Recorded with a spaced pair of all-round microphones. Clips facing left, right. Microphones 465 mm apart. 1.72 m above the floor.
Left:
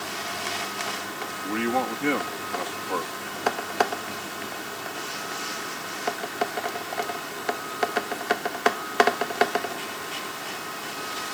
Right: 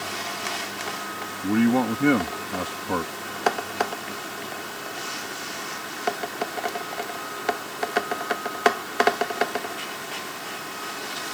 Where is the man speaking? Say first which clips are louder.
Right 7 dB; 60° right (ahead or behind).